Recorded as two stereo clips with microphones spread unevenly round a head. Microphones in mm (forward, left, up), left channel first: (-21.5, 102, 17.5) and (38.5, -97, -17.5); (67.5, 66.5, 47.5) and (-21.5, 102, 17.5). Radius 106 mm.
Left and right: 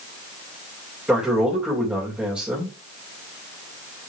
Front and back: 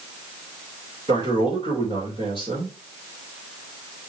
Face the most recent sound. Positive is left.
turn(degrees=-155)